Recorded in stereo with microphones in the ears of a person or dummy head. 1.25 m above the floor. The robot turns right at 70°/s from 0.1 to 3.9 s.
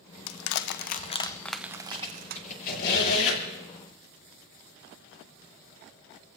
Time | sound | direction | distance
0.3 | crushing | 80° left | 0.8 m
1.9 | a squeak | 5° left (ahead or behind) | 7 m